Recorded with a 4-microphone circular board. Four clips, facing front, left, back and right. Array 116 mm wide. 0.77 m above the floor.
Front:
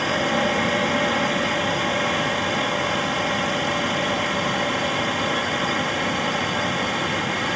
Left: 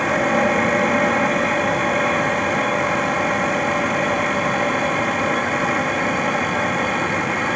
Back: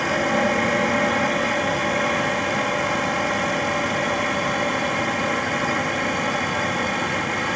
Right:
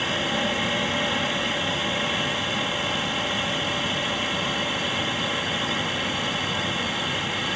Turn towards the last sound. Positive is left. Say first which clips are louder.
# left 9 dB, back 1 dB
turn(degrees=100)